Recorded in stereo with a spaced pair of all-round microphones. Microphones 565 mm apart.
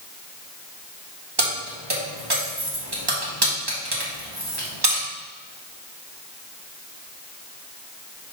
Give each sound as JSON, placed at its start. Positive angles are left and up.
{"t": 1.4, "sound": "keys jangling", "side_deg": -45, "distance_m": 1.5}